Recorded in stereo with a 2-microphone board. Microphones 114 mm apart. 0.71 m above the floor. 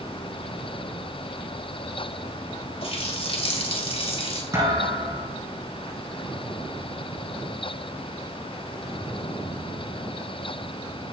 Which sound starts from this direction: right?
A thud, at 4.5 s.